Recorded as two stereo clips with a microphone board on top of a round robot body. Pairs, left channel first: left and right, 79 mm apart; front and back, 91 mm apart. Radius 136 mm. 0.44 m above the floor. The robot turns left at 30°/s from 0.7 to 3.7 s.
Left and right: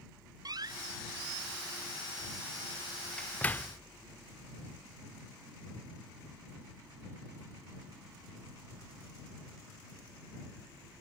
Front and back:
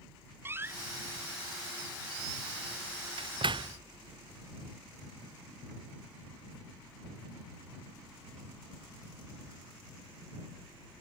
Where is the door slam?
120° right; by 3.8 s 150° left.